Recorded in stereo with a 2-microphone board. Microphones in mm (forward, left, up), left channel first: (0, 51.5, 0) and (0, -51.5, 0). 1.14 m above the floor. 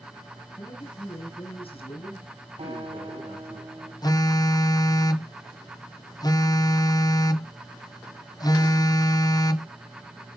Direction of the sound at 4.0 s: 40° left (ahead or behind).